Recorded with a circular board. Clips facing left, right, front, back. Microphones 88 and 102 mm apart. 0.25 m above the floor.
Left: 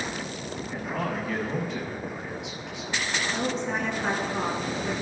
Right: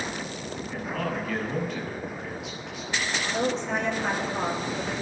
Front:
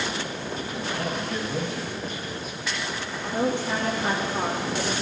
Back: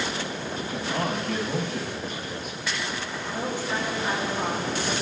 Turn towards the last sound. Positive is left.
turn(degrees=15)